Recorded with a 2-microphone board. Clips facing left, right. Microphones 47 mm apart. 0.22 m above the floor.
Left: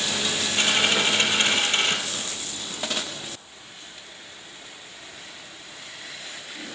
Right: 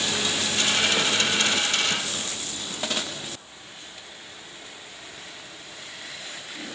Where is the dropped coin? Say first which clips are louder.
Left 2 dB; 30° left (ahead or behind), 2 m.